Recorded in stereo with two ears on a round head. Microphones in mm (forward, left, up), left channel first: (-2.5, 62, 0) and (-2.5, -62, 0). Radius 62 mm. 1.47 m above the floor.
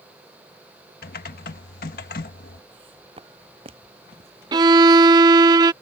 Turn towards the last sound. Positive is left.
turn(degrees=-30)  # may be behind; listen again after turning